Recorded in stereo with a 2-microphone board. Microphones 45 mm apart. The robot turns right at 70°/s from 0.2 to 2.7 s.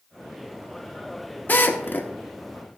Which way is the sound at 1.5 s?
40° left (ahead or behind).